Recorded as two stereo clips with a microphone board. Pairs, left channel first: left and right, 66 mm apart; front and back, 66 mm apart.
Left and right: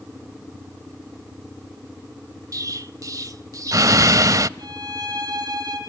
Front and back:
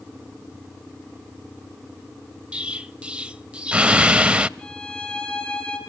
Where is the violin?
75° right, 5 m.